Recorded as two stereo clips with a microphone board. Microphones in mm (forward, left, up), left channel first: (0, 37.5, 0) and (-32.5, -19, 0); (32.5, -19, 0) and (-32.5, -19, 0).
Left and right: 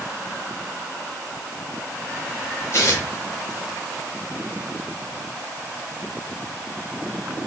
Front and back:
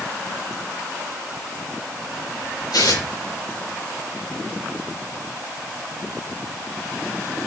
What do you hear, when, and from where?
2.7 s tearing paper: 10° left, 6 m